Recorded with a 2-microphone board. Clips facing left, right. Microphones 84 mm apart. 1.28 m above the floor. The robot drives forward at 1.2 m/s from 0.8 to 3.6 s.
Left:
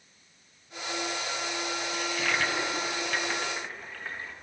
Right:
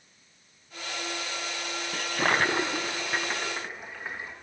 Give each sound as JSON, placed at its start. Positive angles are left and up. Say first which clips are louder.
{"t": 1.9, "sound": "a toilet flushing", "louder": "right 5 dB", "side_deg": -55, "distance_m": 0.6}